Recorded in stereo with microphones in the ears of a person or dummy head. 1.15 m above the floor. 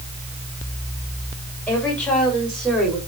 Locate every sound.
1.7 s a woman speaking: 10° left (ahead or behind), 4 m; by 3.0 s centre (ahead or behind), 4 m